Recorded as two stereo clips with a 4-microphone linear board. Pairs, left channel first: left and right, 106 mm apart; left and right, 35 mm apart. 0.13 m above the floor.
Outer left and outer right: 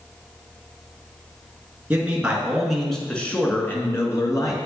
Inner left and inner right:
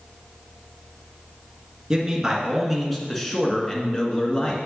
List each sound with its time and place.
1.9 s a man speaking: 15° right (ahead or behind), 1.5 m; by 4.6 s 35° left (ahead or behind), 1.4 m